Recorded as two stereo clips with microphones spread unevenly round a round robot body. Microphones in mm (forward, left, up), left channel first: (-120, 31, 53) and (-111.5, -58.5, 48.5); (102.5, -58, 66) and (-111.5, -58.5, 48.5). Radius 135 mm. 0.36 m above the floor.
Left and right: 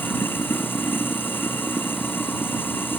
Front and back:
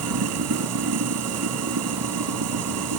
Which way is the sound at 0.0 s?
165° left.